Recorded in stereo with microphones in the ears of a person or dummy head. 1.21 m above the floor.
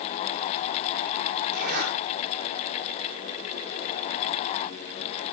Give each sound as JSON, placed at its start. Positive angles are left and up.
{"t": 1.5, "sound": "a zipper", "side_deg": -55, "distance_m": 9.5}